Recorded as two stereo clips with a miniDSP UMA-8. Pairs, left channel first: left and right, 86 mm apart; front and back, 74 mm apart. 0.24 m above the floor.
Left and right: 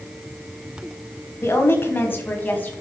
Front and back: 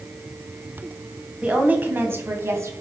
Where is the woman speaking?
120° left, 1.4 m; by 2.7 s 150° left, 1.7 m.